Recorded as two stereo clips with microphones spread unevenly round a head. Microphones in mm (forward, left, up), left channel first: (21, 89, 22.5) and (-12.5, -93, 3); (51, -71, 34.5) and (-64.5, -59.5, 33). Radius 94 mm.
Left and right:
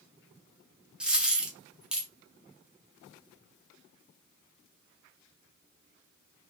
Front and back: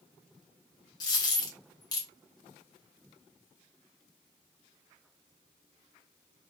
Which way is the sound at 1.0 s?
10° right.